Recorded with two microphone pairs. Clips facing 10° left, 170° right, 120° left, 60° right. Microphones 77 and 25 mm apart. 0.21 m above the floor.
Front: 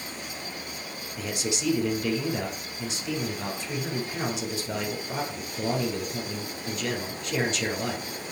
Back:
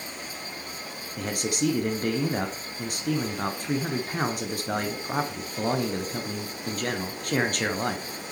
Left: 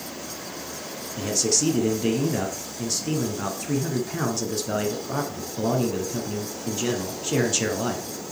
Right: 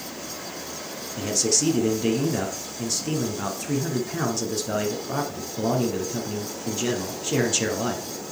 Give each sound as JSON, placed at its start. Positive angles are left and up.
{"t": 1.2, "sound": "a man speaking", "azimuth_deg": -145, "distance_m": 2.0}